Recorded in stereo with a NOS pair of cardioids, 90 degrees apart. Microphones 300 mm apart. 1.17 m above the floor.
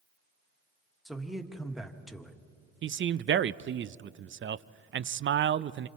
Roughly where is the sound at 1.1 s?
Ahead.